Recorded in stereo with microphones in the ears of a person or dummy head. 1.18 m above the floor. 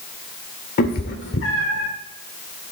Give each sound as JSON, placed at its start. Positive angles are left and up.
{"t": 0.8, "sound": "a cat meowing", "side_deg": 50, "distance_m": 1.4}